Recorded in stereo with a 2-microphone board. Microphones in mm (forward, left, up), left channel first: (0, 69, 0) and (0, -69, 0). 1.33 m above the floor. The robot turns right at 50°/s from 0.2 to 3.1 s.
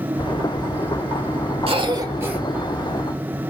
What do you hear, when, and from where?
1.7 s a cough: 45° right, 1.6 m; by 2.4 s 10° right, 1.6 m